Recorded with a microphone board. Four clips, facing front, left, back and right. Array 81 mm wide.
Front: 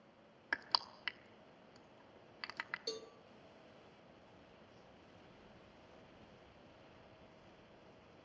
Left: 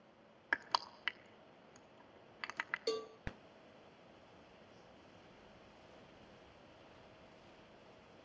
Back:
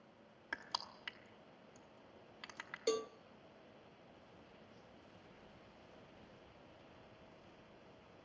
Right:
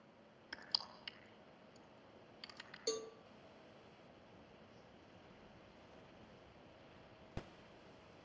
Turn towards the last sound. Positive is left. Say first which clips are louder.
# left 2 dB, back 15 dB
turn(degrees=160)